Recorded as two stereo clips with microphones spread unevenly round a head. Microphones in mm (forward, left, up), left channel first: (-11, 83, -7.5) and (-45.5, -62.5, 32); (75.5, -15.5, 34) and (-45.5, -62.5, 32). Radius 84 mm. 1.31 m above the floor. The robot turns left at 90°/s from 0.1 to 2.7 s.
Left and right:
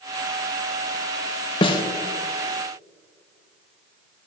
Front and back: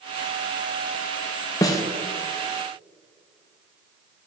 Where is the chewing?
No chewing in this recording.